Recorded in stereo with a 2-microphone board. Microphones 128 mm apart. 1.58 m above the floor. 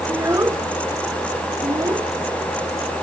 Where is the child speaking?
20° right (ahead or behind); by 2.1 s 30° right (ahead or behind).